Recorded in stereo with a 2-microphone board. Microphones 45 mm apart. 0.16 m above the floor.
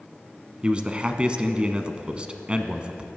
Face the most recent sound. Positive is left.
turn(degrees=-20)  # may be behind; listen again after turning